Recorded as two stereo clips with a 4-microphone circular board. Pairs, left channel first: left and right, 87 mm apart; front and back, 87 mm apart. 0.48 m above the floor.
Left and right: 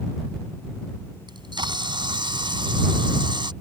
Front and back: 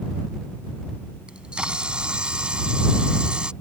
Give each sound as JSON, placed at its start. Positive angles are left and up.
{"t": 1.3, "sound": "a camera shutter", "azimuth_deg": -100}